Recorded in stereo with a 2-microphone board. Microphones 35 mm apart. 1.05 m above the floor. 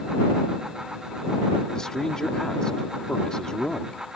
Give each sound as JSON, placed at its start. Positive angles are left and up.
{"t": 1.8, "sound": "a man speaking", "side_deg": 20}